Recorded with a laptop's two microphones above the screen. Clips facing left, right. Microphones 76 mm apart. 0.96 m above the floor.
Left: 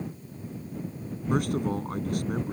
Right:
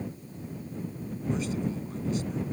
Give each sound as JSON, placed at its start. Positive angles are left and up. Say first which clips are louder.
{"t": 1.3, "sound": "a man speaking", "louder": "left 5 dB", "side_deg": 60}